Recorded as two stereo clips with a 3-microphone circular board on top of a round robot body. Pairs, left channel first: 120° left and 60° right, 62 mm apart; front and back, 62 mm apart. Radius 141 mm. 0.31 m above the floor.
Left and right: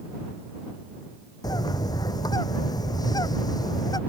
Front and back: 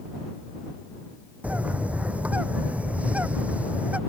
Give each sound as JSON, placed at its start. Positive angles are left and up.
{"t": 1.4, "sound": "a bird", "azimuth_deg": 110}